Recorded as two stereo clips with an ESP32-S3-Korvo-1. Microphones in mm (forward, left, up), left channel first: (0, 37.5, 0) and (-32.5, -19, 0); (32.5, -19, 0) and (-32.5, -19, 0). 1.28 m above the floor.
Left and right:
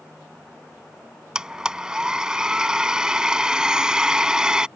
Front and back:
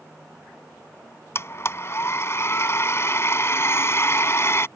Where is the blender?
40° right.